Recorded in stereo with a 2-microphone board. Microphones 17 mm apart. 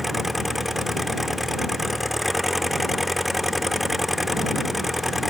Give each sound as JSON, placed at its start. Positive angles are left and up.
{"t": 0.0, "sound": "an engine running", "side_deg": -10}